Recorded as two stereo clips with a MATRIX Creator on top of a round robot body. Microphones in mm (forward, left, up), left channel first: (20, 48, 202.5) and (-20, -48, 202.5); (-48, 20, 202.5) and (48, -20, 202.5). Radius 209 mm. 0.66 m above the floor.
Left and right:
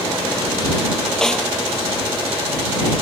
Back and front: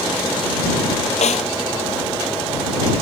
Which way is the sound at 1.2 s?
155° left.